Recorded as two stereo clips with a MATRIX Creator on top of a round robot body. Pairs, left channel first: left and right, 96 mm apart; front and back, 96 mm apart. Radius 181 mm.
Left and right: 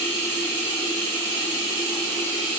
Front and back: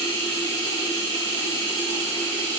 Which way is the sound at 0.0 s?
135° right.